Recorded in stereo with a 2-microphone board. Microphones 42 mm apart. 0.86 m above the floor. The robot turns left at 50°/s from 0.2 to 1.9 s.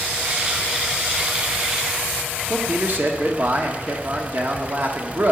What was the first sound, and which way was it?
A man speaking, 50° right (ahead or behind).